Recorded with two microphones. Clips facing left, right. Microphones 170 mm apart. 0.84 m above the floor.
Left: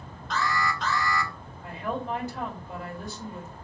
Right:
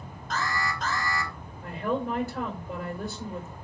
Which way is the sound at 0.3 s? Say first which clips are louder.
Left 3 dB; 45° right (ahead or behind).